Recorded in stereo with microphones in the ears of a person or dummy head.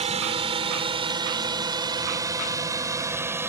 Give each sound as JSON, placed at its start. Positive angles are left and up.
{"t": 0.0, "sound": "a drone", "side_deg": -30}